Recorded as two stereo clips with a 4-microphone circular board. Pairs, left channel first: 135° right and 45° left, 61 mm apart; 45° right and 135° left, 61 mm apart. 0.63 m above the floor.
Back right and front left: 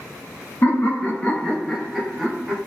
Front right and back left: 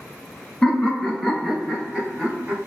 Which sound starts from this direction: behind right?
Laughter, at 0.6 s.